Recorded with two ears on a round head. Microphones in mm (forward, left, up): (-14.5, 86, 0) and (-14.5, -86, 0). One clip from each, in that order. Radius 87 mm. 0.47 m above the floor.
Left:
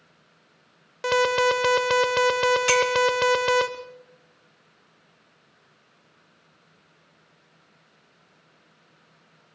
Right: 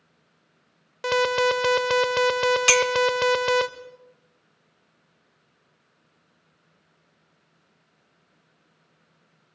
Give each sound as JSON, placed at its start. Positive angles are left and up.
{"t": 1.0, "sound": "an alarm", "side_deg": -5, "distance_m": 0.8}
{"t": 2.7, "sound": "a clink", "side_deg": -35, "distance_m": 0.7}